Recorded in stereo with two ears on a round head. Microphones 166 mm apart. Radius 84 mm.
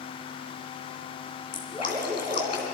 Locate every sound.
1.5 s dripping: 25° left (ahead or behind), 3 m